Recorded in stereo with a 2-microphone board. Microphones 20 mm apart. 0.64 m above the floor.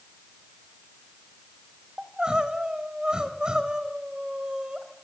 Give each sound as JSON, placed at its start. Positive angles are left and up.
{"t": 2.0, "sound": "crying", "side_deg": -50, "distance_m": 3.5}